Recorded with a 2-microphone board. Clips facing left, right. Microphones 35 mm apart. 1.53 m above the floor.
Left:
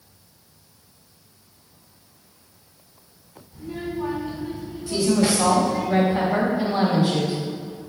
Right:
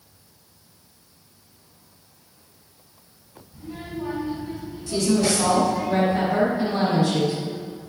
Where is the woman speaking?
25° left (ahead or behind), 3 m.